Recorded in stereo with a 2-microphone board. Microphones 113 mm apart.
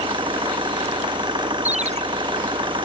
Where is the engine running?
45° right (ahead or behind).